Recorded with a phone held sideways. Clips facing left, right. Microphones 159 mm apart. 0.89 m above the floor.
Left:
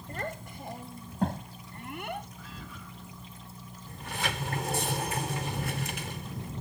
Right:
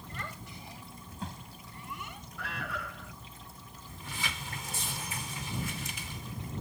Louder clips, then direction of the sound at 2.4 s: Right 6 dB; 75° right (ahead or behind).